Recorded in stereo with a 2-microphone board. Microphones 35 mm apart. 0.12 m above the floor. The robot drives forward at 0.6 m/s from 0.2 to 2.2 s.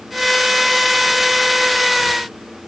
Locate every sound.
Only background noise.